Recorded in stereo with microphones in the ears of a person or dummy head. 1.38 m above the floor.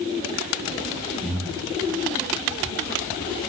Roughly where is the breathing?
Centre.